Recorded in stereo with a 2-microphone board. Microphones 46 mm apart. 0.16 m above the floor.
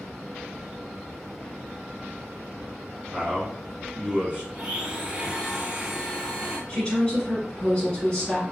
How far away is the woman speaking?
About 1.3 m.